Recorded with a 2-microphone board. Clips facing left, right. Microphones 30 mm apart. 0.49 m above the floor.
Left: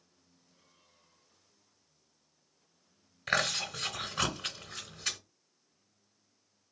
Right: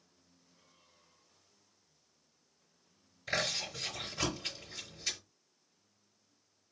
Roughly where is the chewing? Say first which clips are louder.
Left 4 dB; left.